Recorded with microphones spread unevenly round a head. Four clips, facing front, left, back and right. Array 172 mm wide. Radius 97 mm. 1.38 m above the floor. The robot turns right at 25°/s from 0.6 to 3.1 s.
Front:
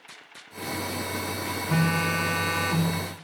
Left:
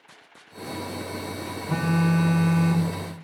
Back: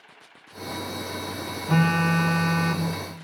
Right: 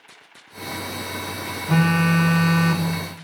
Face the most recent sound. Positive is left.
turn(degrees=-75)